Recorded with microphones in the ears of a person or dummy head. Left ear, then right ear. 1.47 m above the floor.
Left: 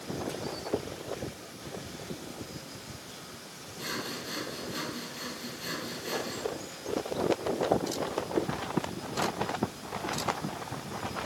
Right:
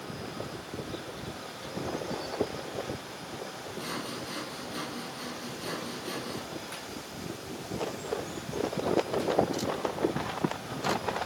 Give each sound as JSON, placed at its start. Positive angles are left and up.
{"t": 3.8, "sound": "sawing", "side_deg": 5}